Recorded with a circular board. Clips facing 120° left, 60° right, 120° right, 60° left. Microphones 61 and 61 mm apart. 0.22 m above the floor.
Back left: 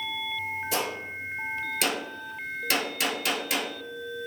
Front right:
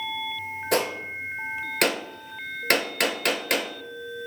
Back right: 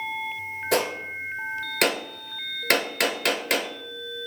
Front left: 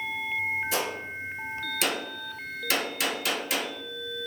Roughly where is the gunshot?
Right.